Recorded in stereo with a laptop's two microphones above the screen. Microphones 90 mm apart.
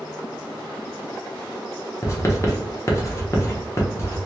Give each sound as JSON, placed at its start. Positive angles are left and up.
{"t": 2.0, "sound": "writing", "side_deg": 35, "distance_m": 0.9}